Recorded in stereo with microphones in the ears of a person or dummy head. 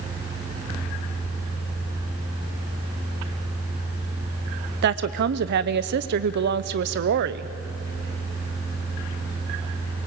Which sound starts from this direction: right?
A woman speaking, at 4.8 s.